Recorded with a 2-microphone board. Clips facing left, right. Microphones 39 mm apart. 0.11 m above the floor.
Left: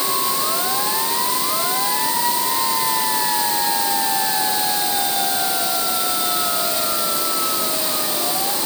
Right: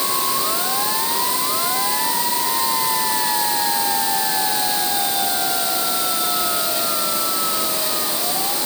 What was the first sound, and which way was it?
Only background noise.